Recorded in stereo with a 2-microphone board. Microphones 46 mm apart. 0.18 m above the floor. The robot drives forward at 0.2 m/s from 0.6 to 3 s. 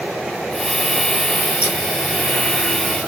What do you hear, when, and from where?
1.6 s scissors: 15° right (ahead or behind), 1.8 m